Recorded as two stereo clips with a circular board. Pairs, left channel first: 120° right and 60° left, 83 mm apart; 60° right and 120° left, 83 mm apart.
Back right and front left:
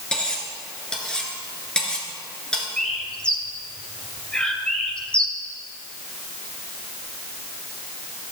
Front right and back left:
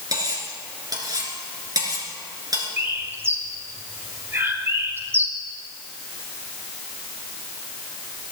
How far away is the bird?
About 1.9 m.